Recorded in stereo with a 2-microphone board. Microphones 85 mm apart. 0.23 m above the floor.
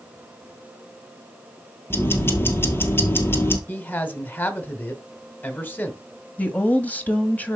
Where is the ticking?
25° left (ahead or behind), 2.0 m.